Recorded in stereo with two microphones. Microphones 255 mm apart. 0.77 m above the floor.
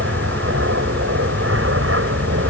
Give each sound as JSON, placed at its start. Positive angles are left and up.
{"t": 0.0, "sound": "an aircraft", "side_deg": -55}